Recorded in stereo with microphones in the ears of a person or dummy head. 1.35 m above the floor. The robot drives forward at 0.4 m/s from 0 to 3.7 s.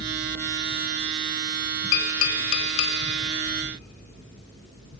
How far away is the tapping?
About 1.4 m.